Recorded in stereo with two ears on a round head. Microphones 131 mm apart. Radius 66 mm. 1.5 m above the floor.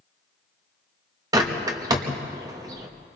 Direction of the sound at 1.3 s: 25° right (ahead or behind).